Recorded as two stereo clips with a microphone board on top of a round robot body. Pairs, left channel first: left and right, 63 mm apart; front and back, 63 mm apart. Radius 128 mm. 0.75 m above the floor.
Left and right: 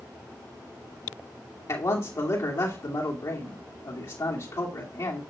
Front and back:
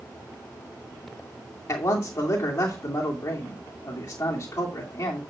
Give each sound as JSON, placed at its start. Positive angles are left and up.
{"t": 1.7, "sound": "a man speaking", "azimuth_deg": 50, "distance_m": 2.5}